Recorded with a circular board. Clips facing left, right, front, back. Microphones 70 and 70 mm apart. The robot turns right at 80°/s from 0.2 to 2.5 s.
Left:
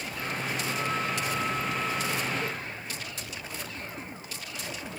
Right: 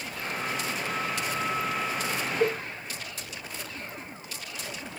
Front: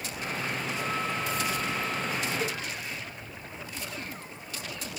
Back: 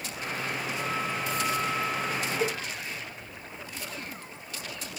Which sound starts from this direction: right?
A cowbell, at 2.4 s.